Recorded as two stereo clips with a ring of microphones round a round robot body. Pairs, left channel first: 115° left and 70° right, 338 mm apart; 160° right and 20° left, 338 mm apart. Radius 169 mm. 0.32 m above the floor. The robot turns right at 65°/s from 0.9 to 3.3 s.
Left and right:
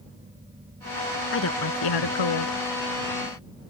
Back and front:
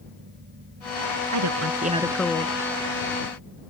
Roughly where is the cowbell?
No cowbell in this recording.